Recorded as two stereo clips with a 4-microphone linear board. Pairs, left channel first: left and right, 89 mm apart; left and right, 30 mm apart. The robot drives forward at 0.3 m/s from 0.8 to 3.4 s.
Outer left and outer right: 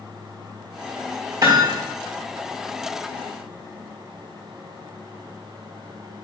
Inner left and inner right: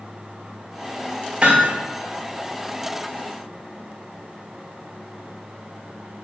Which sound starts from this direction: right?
Hammering, at 1.4 s.